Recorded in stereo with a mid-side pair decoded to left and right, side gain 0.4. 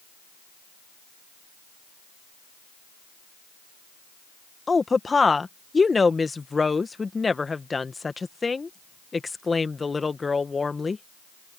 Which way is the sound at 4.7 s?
30° left.